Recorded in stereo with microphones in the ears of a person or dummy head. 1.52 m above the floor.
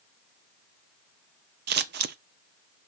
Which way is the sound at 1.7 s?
55° right (ahead or behind).